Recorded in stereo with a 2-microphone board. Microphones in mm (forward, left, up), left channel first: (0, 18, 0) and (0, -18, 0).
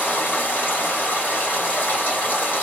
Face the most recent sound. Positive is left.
turn(degrees=60)  # may be behind; listen again after turning